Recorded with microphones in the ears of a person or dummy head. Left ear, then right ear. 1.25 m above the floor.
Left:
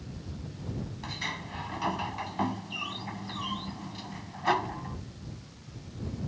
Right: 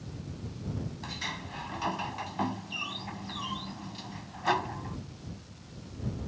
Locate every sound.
1.0 s a sliding door: 5° left (ahead or behind)